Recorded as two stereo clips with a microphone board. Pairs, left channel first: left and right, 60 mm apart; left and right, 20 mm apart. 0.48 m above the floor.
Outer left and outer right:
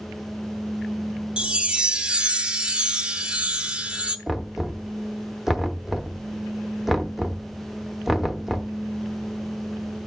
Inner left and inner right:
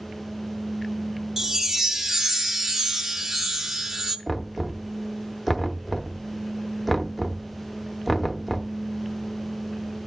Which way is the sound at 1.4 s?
15° right (ahead or behind).